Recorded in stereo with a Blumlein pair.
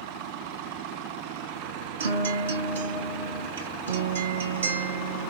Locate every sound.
2.0 s a guitar: 65° right, 1.5 m